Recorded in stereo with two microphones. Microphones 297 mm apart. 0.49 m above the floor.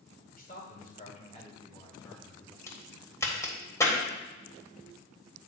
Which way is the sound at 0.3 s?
30° left (ahead or behind).